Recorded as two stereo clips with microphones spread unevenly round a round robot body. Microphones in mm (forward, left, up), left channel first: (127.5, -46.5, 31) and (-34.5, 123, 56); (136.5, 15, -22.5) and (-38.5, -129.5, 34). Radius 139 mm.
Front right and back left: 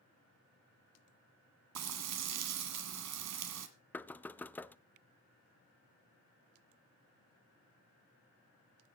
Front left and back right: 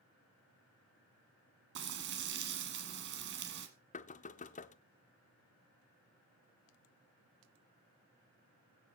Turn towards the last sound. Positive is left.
turn(degrees=30)